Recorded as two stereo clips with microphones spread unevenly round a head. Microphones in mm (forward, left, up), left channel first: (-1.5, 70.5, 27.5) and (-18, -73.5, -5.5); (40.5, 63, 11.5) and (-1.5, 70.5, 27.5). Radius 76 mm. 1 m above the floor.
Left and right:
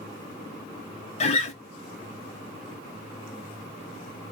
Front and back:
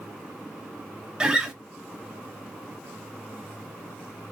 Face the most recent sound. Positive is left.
turn(degrees=80)